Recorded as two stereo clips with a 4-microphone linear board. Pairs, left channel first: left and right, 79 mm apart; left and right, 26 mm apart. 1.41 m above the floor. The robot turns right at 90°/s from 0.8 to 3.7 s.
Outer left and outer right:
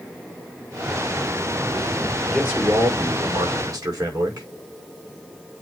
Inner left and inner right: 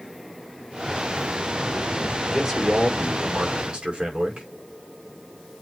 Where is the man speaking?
175° right, 5 m; by 4.5 s 45° right, 5 m.